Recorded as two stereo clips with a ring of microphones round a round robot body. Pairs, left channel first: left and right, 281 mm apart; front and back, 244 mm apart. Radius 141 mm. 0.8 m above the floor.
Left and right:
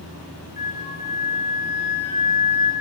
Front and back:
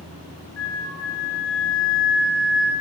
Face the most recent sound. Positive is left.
turn(degrees=25)